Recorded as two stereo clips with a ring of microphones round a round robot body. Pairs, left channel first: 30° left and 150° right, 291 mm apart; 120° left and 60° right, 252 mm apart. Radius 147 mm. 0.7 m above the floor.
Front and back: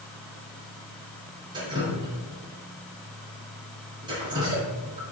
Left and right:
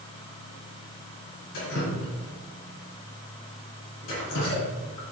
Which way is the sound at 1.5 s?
135° left.